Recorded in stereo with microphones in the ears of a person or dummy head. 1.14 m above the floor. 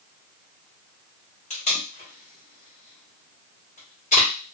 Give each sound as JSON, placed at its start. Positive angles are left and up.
{"t": 1.5, "sound": "tape being pulled", "side_deg": 40, "distance_m": 1.4}